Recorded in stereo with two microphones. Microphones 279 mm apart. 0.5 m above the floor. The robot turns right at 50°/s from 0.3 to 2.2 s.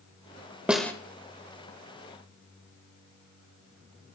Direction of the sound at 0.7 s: 5° right (ahead or behind).